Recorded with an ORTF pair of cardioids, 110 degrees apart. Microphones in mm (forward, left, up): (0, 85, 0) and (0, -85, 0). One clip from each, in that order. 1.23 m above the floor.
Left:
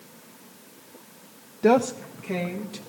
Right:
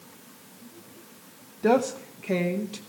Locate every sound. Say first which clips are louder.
1.6 s a woman speaking: left 2 dB; 20° left, 0.5 m; by 2.8 s 25° right, 1.4 m